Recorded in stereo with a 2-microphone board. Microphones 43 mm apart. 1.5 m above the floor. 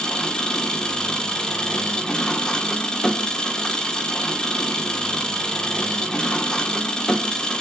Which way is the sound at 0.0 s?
15° left (ahead or behind).